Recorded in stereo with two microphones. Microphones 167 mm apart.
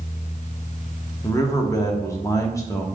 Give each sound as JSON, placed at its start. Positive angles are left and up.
{"t": 1.2, "sound": "a man speaking", "side_deg": 20, "distance_m": 0.6}